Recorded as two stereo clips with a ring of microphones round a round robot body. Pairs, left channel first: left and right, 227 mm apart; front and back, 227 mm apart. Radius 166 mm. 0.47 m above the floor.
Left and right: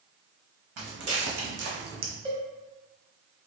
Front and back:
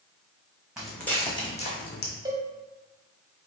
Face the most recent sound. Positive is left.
turn(degrees=-130)